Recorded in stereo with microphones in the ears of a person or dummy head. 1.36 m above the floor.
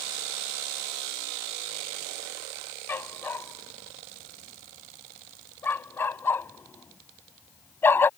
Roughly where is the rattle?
No rattle in this recording.